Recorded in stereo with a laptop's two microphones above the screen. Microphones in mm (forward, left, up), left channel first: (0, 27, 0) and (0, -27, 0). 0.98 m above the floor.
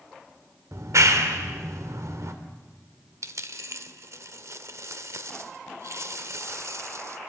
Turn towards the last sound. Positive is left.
turn(degrees=-60)  # may be behind; listen again after turning